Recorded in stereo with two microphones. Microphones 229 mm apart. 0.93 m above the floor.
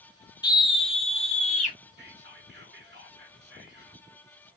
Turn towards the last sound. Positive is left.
turn(degrees=-50)  # may be behind; listen again after turning